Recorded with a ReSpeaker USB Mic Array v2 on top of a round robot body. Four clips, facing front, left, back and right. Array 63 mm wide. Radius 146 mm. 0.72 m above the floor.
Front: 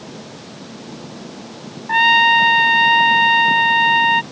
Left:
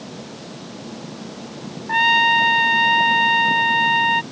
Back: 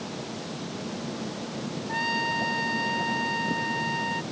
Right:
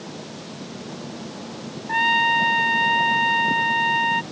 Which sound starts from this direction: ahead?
A trumpet, at 1.9 s.